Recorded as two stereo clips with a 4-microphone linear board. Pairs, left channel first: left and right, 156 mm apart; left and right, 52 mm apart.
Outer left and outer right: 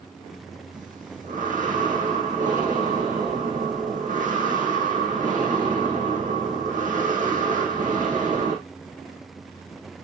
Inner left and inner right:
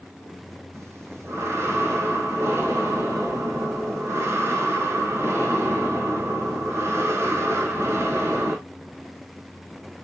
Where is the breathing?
55° right (ahead or behind), 4 m.